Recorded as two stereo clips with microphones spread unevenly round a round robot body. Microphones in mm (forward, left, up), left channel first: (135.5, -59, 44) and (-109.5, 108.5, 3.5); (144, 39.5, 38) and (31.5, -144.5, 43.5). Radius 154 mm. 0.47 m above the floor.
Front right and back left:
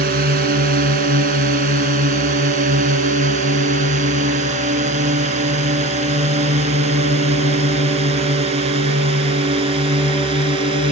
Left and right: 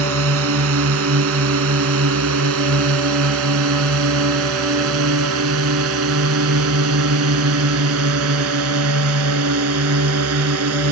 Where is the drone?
150° right; by 10.9 s 140° right.